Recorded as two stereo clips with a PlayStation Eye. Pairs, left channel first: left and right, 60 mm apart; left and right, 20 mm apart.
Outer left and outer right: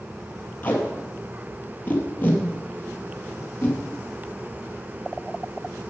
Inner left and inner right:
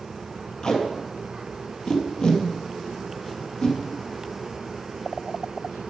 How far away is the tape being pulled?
About 2.5 m.